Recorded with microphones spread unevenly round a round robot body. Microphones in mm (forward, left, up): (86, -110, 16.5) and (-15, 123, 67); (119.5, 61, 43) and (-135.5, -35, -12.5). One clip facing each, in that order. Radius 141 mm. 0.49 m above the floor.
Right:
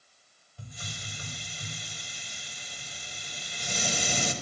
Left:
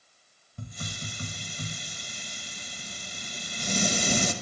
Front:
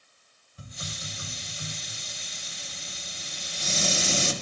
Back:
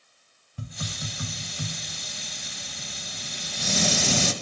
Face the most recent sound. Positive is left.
turn(degrees=160)